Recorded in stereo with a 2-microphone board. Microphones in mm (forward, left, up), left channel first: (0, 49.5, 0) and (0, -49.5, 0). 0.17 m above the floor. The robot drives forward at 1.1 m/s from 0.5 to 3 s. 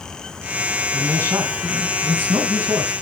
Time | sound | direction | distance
0.9 | a man speaking | 25° right (ahead or behind) | 1.8 m